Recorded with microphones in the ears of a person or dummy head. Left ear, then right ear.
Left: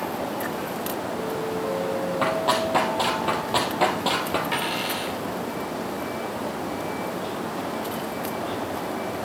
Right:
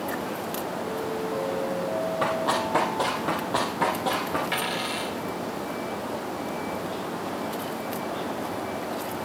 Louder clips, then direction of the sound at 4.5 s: Left 2 dB; centre (ahead or behind).